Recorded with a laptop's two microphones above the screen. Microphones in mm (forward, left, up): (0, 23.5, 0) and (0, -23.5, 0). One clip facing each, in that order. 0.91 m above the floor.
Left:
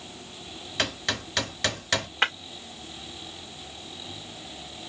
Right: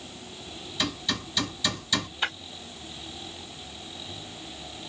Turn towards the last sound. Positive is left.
turn(degrees=75)  # may be behind; listen again after turning